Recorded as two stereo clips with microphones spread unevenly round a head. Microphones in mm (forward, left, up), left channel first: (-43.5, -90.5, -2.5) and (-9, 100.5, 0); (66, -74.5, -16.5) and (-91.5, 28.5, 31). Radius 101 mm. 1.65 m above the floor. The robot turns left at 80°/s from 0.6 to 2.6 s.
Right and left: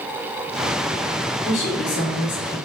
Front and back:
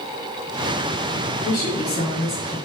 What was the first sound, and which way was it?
A woman speaking, 55° right.